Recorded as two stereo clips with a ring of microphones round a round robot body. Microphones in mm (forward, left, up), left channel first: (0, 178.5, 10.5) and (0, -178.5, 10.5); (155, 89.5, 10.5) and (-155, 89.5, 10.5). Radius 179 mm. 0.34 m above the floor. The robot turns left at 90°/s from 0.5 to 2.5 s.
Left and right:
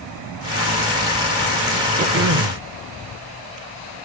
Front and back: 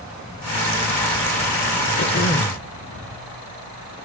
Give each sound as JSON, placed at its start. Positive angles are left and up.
{"t": 2.0, "sound": "throat clearing", "azimuth_deg": -35, "distance_m": 0.9}